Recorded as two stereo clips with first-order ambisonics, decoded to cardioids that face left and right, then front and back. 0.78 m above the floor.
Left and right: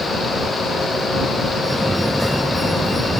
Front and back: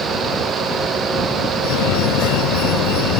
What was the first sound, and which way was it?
A fire alarm, 5° right.